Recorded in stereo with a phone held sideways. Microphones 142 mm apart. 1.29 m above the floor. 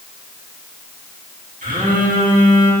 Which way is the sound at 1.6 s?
75° right (ahead or behind).